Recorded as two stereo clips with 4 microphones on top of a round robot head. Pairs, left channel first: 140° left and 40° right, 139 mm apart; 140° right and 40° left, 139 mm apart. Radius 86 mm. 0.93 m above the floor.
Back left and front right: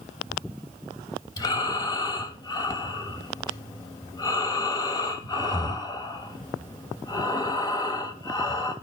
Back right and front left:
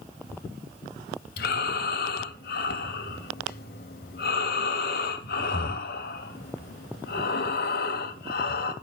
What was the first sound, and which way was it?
Breathing, 155° right.